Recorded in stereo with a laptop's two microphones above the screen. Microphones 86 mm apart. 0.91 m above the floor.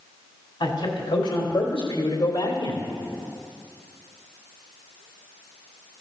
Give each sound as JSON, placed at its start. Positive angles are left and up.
{"t": 0.6, "sound": "a man speaking", "side_deg": 75, "distance_m": 4.0}